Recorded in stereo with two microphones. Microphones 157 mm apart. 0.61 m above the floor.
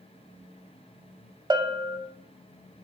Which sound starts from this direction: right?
A bell, at 1.5 s.